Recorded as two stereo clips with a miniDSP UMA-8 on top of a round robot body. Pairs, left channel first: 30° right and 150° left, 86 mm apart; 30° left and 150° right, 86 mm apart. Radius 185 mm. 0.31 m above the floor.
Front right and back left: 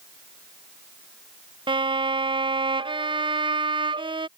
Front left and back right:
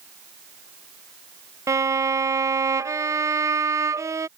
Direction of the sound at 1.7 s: 160° left.